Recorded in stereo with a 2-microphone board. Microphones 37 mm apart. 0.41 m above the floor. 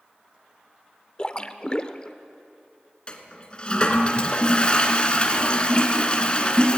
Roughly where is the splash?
Left.